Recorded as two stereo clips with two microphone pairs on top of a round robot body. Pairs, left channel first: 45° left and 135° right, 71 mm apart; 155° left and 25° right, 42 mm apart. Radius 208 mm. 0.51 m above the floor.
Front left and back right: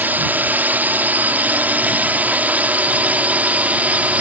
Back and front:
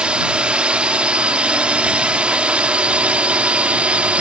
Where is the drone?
70° right; by 4.2 s 65° right.